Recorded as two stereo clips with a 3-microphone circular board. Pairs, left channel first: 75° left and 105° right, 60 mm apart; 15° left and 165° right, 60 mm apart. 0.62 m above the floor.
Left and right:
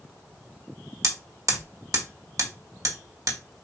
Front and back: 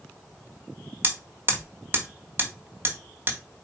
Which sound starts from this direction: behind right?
Hammering, at 1.0 s.